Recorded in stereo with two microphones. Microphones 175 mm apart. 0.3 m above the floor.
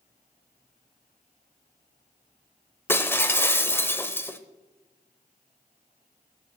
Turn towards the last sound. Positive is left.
turn(degrees=15)  # may be behind; listen again after turning